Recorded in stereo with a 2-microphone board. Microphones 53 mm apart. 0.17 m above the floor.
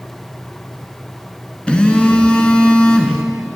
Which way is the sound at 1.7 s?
20° left (ahead or behind).